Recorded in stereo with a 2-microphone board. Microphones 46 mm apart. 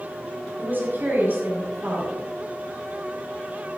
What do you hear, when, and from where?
0.6 s a woman speaking: 45° right (ahead or behind), 6 m